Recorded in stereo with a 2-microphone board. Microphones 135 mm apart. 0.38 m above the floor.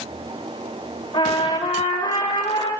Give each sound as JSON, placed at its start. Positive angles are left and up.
{"t": 1.1, "sound": "a trumpet", "side_deg": 35, "distance_m": 1.6}